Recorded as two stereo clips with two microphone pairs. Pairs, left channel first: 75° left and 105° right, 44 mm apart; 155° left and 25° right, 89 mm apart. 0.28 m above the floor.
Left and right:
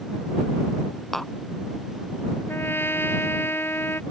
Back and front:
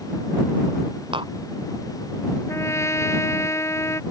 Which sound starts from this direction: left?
A trumpet, at 2.5 s.